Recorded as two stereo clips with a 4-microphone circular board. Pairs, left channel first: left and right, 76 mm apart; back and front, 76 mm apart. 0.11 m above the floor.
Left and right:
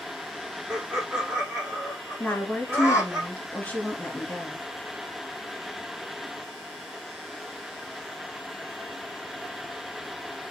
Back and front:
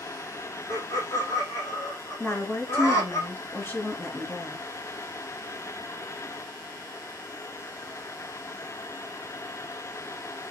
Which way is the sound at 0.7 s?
150° right.